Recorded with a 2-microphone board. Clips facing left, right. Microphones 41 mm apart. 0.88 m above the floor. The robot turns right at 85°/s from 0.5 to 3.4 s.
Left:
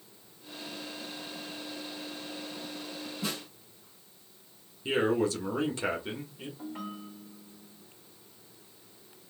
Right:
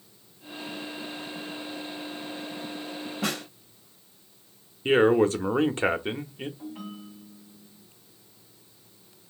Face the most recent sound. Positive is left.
turn(degrees=80)